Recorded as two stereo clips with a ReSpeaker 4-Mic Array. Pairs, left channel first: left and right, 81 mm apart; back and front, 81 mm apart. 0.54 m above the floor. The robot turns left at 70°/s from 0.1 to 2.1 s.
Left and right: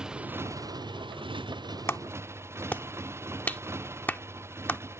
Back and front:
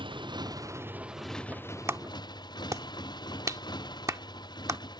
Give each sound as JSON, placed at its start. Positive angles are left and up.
{"t": 0.0, "sound": "a motorcycle", "azimuth_deg": -10}
{"t": 1.9, "sound": "a clap", "azimuth_deg": 45}